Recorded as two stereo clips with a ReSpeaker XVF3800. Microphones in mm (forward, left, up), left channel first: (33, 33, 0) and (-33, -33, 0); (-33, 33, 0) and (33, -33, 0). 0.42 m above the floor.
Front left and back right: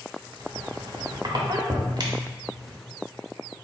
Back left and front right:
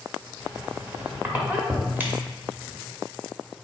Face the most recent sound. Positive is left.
turn(degrees=-110)